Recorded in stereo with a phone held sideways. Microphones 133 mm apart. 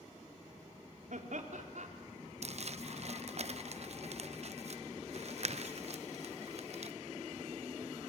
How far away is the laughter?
About 3 m.